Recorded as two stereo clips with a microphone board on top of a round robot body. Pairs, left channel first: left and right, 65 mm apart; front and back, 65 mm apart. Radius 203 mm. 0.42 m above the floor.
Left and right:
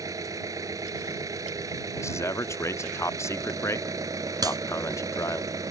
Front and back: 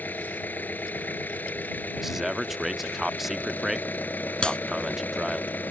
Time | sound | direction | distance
0.0 | an engine running | 60° right | ?
2.0 | a man speaking | 95° left | ?
4.4 | a clap | 75° right | ?